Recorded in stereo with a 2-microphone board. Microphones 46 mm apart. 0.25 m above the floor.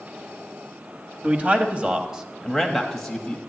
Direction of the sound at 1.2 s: 35° right (ahead or behind).